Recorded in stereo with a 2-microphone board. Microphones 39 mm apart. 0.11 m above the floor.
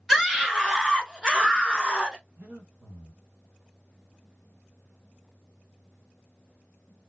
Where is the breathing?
85° right, 1.4 m.